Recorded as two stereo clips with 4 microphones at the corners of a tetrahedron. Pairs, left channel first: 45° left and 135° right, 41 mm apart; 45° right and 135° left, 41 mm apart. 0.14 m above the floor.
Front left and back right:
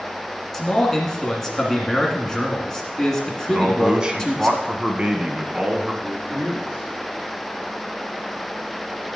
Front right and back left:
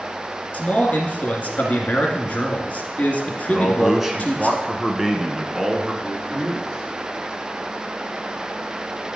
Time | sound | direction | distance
0.5 | a man speaking | 25° right | 1.9 m
3.5 | a man speaking | 165° right | 1.1 m
6.0 | a man speaking | straight behind | 4 m